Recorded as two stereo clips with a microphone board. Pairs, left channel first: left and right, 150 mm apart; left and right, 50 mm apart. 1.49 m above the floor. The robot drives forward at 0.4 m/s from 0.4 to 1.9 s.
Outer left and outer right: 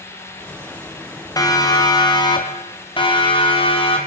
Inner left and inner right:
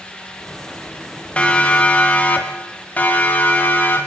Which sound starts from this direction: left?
A siren, at 1.4 s.